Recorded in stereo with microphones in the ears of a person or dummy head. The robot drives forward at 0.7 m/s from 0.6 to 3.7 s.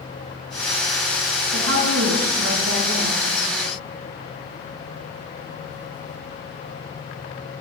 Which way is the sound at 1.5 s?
80° right.